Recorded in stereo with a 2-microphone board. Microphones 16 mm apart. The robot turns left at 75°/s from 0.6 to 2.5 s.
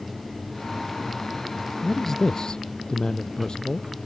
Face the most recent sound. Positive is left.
turn(degrees=120)